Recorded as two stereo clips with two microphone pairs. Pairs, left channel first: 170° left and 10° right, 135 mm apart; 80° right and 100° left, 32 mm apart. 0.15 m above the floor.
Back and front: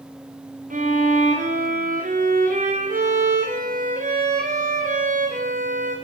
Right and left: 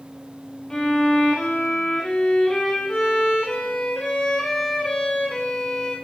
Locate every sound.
0.7 s a violin: 5° right, 3 m